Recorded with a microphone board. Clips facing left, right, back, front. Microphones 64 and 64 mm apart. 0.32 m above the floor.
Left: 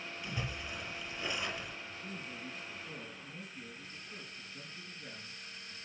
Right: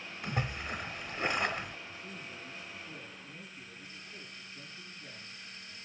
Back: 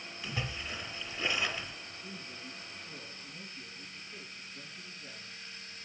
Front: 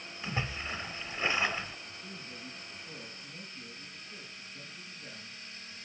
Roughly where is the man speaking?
Left.